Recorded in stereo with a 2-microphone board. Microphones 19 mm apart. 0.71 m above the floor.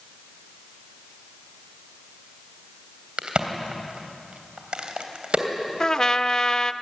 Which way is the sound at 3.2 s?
60° right (ahead or behind).